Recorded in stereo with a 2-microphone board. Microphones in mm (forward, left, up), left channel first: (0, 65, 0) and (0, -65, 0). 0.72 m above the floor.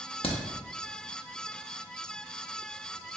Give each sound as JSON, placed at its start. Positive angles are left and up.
{"t": 0.2, "sound": "a crack", "side_deg": 45, "distance_m": 0.6}